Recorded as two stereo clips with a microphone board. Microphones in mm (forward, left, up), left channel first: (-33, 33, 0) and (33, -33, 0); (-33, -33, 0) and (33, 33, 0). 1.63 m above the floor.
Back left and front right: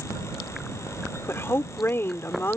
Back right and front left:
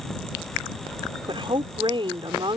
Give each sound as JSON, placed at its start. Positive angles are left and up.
{"t": 1.3, "sound": "a woman speaking", "azimuth_deg": 70}